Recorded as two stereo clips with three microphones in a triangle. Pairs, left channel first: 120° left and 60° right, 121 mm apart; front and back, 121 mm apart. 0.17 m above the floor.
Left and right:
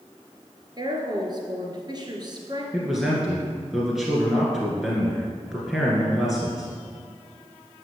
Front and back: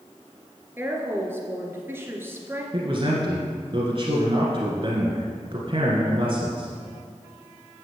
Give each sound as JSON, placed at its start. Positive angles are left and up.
{"t": 0.8, "sound": "a woman speaking", "azimuth_deg": -110, "distance_m": 2.5}
{"t": 2.7, "sound": "a man speaking", "azimuth_deg": -145, "distance_m": 2.0}